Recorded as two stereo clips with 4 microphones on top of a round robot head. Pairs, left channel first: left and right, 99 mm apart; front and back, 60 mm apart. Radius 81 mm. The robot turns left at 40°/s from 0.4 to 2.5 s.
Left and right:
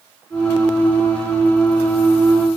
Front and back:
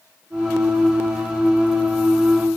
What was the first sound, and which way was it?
Only background noise.